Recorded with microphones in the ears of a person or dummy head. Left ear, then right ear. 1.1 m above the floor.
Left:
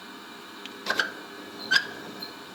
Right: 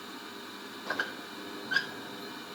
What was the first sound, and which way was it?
A squeak, 75° left (ahead or behind).